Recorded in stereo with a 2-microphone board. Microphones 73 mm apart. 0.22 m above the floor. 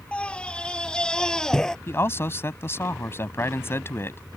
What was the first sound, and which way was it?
A scream, 15° left (ahead or behind).